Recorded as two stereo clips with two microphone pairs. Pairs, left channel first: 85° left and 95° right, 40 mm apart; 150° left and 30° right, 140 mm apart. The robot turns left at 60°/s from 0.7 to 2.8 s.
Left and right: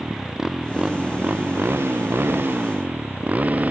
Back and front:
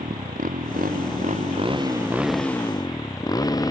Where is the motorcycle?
20° right; by 3.7 s 145° right.